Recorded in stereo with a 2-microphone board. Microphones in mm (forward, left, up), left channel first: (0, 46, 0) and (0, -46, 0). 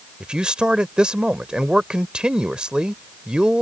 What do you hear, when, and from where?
0.2 s a man speaking: 10° right (ahead or behind)